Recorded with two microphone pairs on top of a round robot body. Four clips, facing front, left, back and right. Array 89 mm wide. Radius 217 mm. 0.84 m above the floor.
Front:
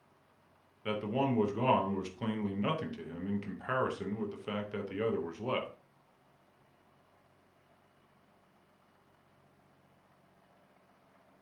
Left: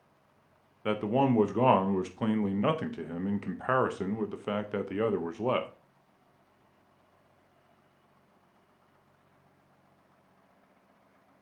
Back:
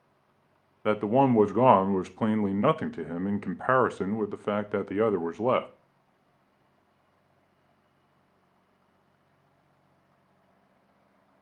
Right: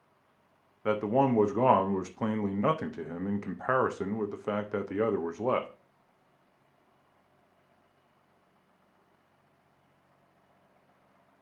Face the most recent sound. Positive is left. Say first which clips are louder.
# right 1 dB, back 10 dB
turn(degrees=-175)